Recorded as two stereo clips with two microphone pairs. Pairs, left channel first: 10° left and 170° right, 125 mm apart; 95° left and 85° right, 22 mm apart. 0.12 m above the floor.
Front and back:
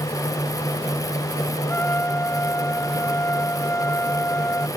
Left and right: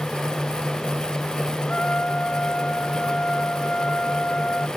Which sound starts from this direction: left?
A trumpet, at 1.6 s.